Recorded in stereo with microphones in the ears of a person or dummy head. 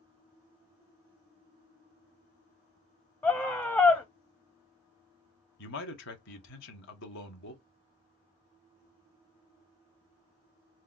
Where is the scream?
10° left (ahead or behind), 0.7 m.